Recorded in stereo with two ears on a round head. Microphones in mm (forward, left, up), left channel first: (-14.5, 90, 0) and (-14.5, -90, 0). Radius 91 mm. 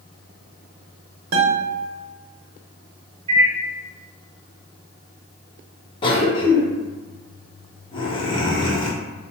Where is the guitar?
75° right (ahead or behind), 0.8 m.